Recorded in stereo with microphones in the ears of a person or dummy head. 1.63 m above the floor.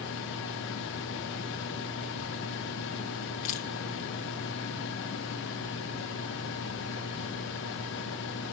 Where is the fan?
65° left (ahead or behind), 1.1 m.